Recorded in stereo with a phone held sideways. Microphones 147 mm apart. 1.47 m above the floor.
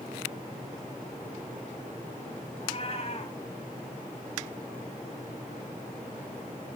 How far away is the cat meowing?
About 3.5 m.